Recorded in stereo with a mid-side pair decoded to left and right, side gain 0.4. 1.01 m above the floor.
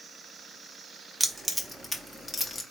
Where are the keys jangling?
10° right, 1.0 m; by 2.6 s 35° left, 1.0 m.